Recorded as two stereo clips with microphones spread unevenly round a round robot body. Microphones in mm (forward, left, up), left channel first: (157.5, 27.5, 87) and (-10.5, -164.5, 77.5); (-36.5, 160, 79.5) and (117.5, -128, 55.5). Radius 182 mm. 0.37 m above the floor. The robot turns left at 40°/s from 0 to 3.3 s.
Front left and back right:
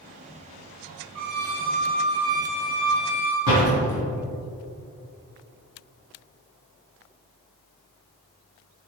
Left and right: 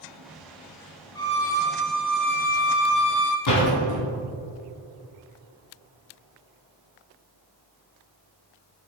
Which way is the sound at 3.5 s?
85° left.